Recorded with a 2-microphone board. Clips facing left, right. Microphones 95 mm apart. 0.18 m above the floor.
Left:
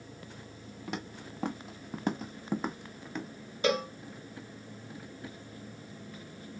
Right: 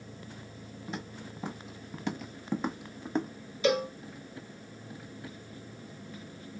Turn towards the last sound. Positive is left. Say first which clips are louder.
# right 2 dB
turn(degrees=45)  # may be behind; listen again after turning